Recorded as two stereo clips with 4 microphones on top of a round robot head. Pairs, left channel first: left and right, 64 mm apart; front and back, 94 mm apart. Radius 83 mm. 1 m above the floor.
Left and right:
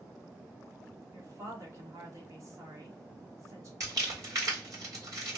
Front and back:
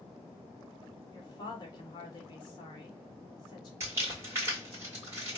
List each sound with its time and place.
1.1 s a woman speaking: 50° right, 1.2 m
3.8 s crumpling: 115° right, 1.6 m